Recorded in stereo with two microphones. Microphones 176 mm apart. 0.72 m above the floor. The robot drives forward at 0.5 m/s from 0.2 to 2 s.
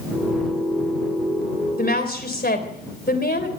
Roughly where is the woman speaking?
Left.